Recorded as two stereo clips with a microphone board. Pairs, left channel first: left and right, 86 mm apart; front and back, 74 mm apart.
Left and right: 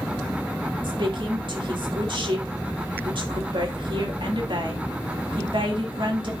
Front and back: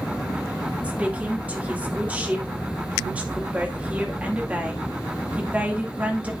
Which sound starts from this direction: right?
A woman speaking, at 0.8 s.